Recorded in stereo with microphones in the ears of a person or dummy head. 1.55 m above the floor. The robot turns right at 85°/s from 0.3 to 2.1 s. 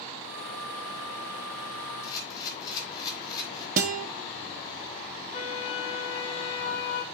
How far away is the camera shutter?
About 3 m.